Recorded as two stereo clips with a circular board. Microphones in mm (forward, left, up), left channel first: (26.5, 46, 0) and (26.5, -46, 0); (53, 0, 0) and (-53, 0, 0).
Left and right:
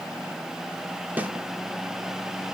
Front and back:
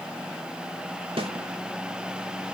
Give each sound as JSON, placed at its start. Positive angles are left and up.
{"t": 1.2, "sound": "a snare drum", "azimuth_deg": -160, "distance_m": 2.0}